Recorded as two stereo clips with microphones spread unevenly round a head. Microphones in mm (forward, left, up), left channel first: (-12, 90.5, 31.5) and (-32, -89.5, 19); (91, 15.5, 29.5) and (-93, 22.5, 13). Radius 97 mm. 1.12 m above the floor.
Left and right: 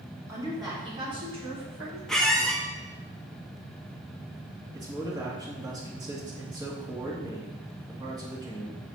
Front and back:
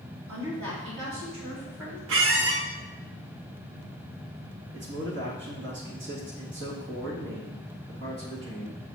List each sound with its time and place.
0.3 s a woman speaking: 170° right, 2.5 m; by 2.0 s 155° right, 4 m
2.1 s a squeak: 170° left, 0.7 m
4.7 s a man speaking: 165° right, 2 m